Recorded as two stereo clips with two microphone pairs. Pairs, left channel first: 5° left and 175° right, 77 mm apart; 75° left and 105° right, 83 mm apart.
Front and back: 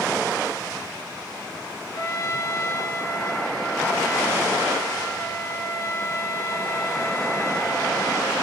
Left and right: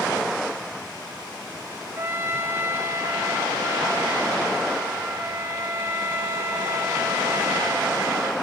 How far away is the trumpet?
About 2.5 m.